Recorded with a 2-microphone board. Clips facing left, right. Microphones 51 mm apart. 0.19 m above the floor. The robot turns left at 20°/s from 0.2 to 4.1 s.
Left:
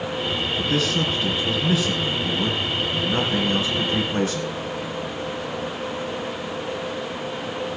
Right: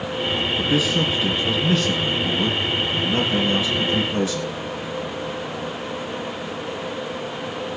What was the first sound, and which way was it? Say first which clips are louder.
A man speaking: right 2 dB; 165° right.